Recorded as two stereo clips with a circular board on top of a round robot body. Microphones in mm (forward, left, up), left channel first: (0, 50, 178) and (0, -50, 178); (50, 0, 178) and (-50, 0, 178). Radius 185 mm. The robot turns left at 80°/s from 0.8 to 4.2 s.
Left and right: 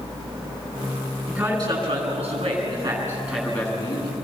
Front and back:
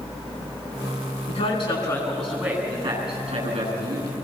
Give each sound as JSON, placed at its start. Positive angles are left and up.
{"t": 1.3, "sound": "a man speaking", "azimuth_deg": -15, "distance_m": 8.5}